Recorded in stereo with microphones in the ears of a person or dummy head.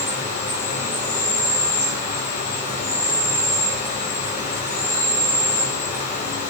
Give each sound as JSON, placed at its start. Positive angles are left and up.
{"t": 0.0, "sound": "an insect", "side_deg": 40, "distance_m": 1.6}